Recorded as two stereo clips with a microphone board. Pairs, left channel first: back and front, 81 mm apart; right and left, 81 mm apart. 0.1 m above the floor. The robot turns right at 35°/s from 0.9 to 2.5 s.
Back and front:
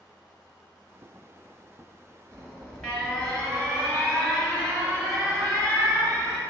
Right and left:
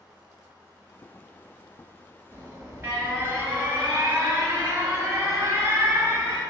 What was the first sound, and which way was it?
An alarm, 115° left.